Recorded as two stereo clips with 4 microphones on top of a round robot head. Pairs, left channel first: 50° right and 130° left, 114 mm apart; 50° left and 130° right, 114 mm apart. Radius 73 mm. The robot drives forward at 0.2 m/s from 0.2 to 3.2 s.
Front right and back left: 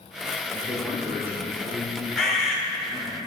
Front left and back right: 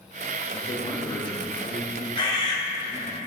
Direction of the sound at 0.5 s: 60° left.